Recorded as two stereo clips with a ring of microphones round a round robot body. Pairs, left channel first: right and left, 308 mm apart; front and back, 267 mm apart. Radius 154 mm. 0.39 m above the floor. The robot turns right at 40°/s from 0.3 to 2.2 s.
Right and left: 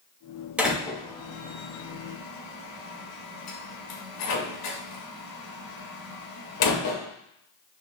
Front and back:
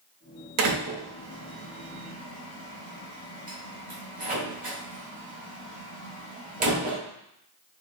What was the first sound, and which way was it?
A door slam, 175° left.